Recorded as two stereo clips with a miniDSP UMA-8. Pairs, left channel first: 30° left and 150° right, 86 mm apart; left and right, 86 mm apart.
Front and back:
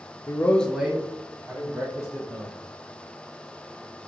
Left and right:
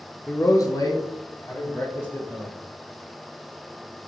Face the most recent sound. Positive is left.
turn(degrees=140)